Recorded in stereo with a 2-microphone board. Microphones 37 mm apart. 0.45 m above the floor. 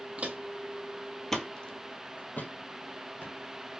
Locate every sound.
0.2 s footsteps: 35° right (ahead or behind), 0.9 m; by 3.4 s 70° left (ahead or behind), 1.4 m